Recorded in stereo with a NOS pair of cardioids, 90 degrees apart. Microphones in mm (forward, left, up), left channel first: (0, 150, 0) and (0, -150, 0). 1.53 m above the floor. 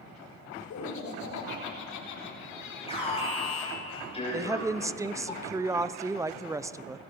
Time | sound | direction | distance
0.7 | laughter | 70° left | 5.5 m
2.9 | an alarm | 20° left | 7.5 m
4.3 | a woman speaking | 10° right | 0.5 m